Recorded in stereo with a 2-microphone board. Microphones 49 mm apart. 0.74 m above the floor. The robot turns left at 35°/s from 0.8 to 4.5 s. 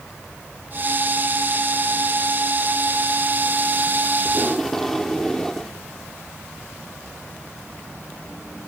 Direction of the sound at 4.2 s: Centre (ahead or behind).